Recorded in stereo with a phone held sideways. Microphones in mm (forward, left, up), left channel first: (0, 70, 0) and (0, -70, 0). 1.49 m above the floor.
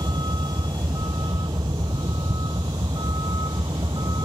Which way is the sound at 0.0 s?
30° right (ahead or behind).